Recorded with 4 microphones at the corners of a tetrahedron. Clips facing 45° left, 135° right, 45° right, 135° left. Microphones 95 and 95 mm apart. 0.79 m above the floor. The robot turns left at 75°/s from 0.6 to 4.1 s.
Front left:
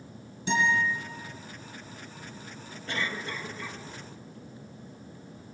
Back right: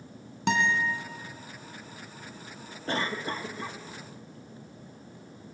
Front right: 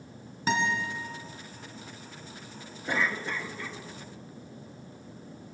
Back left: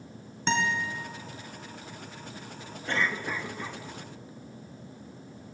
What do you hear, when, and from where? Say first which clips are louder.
0.5 s a guitar: even, even; 130° right, 3 m; by 0.8 s 145° right, 3 m
2.9 s a cough: back right 3 dB, even; 115° right, 0.9 m; by 3.8 s 175° left, 0.9 m